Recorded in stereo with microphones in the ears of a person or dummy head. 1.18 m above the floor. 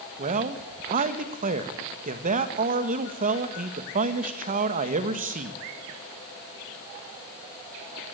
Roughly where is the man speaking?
Right.